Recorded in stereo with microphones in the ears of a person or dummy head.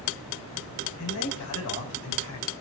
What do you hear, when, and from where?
1.0 s a man speaking: 75° left (ahead or behind), 8.5 m; by 2.5 s 70° left (ahead or behind), 9 m